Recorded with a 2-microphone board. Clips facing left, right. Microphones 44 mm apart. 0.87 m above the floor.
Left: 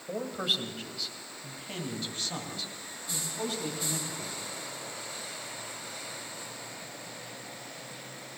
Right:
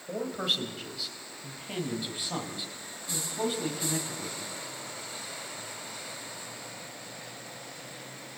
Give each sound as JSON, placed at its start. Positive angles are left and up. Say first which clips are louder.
{"t": 0.1, "sound": "a man speaking", "louder": "right 1 dB", "side_deg": 5, "distance_m": 4.0}